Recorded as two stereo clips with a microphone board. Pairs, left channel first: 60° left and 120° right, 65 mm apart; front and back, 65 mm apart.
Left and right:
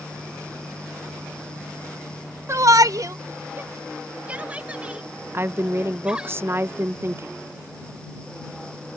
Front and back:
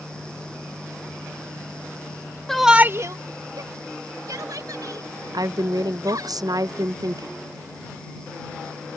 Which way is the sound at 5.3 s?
175° right.